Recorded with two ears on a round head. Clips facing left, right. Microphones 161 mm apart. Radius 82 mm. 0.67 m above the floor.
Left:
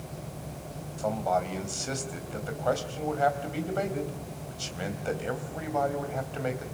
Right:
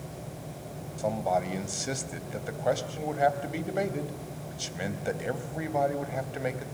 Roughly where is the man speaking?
Centre.